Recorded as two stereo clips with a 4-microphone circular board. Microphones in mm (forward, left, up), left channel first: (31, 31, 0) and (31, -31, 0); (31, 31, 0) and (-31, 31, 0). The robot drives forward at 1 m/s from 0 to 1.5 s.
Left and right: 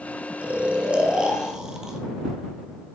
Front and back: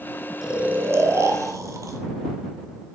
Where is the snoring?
110° right, 0.7 m; by 2.0 s 170° right, 1.4 m.